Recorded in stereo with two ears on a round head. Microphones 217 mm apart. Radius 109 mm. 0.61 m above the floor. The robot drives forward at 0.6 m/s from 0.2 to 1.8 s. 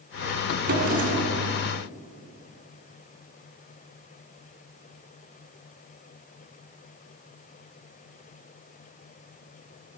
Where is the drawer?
40° right (ahead or behind), 2.5 m; by 1.4 s 35° right (ahead or behind), 3 m.